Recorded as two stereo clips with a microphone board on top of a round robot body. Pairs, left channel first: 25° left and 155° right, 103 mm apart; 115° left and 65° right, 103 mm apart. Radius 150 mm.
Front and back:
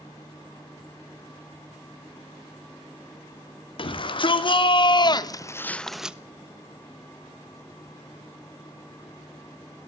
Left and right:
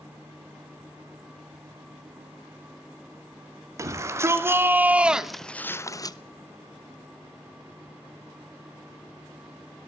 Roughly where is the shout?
Ahead.